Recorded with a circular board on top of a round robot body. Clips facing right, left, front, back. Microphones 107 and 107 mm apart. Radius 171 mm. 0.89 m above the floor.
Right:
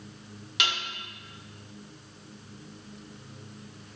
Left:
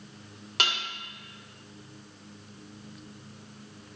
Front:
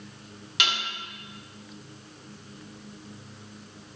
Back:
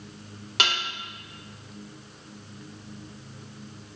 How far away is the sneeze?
No sneeze in this recording.